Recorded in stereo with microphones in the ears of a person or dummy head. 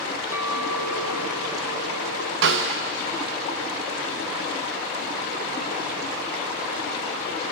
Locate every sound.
0.3 s a clink: 10° right (ahead or behind), 1.3 m
2.4 s a snare drum: 65° right (ahead or behind), 1.0 m